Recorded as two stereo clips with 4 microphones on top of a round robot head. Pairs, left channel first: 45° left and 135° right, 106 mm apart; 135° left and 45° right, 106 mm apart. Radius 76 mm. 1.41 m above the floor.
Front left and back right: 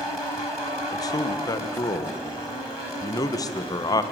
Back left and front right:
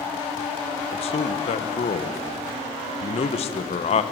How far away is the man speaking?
About 1.3 m.